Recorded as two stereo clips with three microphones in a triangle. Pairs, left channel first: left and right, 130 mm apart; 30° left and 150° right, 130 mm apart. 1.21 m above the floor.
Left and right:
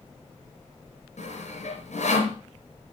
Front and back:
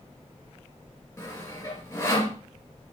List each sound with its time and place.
1.2 s sawing: 100° left, 3 m